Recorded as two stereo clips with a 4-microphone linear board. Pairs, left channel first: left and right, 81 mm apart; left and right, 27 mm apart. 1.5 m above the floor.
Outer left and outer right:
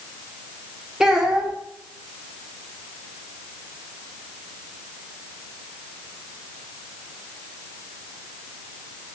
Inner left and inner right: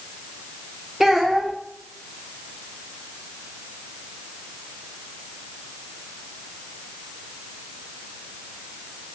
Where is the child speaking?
5° right (ahead or behind), 0.5 m.